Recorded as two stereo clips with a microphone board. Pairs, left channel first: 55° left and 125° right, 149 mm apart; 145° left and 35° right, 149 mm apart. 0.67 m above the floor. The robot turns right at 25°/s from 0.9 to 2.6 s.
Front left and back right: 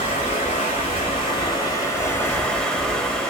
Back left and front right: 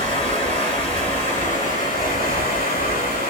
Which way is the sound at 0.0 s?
100° left.